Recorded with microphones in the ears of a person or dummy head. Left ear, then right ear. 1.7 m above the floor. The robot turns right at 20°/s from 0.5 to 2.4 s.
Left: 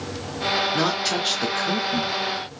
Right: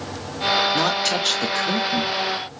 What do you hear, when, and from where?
0.7 s a woman speaking: 5° right (ahead or behind), 0.6 m; by 2.2 s 25° right (ahead or behind), 0.6 m